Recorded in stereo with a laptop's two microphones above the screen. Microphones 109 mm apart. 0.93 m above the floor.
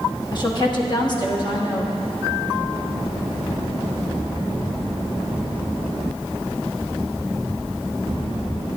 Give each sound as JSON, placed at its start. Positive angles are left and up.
{"t": 0.3, "sound": "a woman speaking", "side_deg": 45, "distance_m": 1.3}